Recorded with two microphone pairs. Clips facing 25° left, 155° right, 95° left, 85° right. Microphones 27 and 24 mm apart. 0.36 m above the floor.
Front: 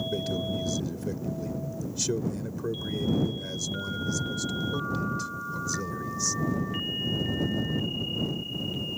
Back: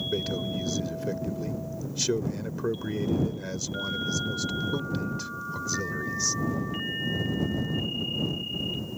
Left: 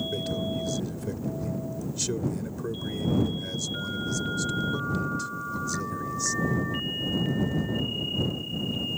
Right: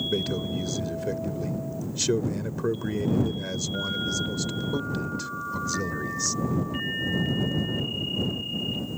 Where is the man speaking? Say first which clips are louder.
Even, right 2 dB; 120° right.